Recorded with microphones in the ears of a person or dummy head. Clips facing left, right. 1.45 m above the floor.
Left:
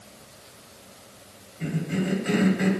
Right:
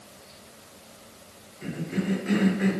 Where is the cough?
80° left, 4 m.